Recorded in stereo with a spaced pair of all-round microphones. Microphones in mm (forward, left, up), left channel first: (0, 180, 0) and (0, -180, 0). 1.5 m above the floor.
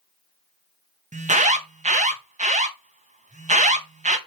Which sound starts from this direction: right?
An alarm, at 1.1 s.